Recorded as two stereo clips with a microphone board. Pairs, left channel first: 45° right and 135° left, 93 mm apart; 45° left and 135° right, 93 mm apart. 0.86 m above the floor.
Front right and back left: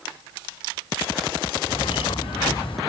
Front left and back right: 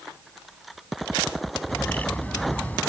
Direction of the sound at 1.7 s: 30° right.